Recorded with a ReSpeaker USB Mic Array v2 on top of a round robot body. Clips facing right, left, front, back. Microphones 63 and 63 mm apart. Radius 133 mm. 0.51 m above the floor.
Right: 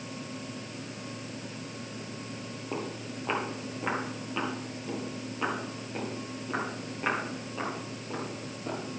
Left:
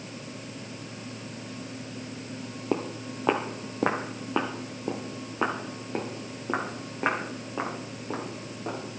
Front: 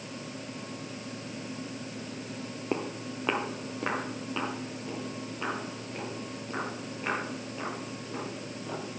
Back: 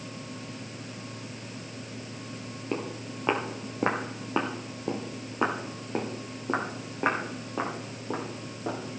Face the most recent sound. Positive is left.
turn(degrees=150)